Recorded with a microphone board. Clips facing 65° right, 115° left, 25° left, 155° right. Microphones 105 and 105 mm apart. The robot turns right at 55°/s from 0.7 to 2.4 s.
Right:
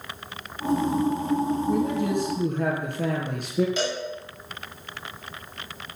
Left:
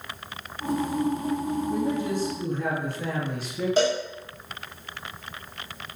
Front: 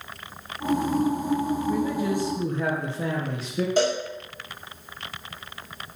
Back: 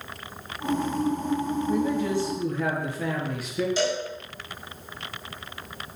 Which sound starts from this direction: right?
A man speaking, at 1.7 s.